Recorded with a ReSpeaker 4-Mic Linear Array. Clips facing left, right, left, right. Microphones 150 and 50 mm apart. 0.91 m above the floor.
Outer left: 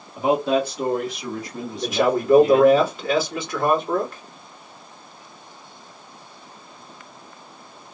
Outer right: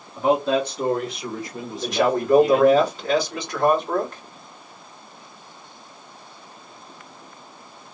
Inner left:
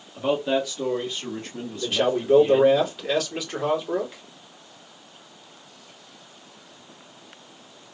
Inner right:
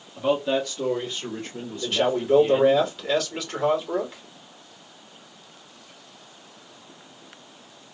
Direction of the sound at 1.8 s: 5° left (ahead or behind).